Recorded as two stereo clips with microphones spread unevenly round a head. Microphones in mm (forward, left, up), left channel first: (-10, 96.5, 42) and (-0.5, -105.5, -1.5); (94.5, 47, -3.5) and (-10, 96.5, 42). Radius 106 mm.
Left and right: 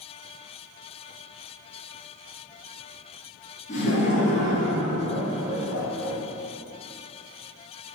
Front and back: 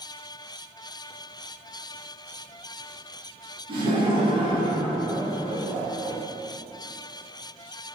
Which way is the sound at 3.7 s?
140° left.